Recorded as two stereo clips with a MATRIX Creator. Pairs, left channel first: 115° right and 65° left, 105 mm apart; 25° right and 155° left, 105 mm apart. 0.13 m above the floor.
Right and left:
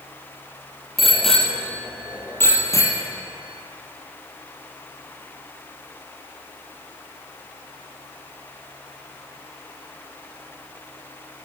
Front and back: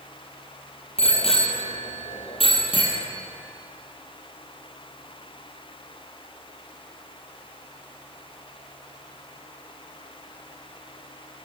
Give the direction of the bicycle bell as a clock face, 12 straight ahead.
1 o'clock.